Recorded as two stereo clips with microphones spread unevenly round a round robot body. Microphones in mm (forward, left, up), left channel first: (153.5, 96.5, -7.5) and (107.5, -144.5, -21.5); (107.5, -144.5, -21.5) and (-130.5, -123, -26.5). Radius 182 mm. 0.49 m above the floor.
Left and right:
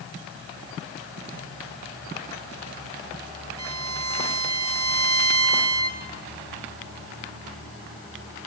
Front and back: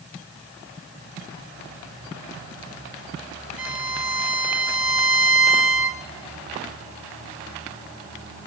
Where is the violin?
170° right, 2.5 m.